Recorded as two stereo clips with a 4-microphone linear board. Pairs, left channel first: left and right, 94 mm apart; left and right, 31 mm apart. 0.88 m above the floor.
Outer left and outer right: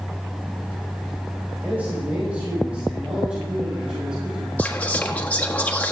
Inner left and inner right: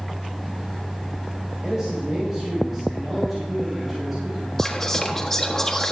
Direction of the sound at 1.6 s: 20° right (ahead or behind).